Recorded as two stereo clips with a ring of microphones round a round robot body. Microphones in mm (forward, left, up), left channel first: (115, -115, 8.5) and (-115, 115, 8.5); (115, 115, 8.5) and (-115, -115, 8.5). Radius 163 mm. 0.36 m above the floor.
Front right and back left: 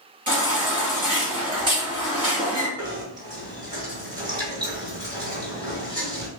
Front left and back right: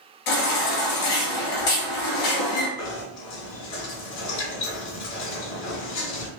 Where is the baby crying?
60° left, 2 m.